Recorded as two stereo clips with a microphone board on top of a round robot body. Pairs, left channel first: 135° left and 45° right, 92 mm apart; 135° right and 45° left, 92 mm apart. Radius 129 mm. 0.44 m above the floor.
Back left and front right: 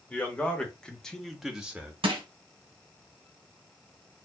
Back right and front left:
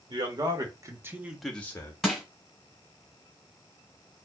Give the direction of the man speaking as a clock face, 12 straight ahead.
10 o'clock.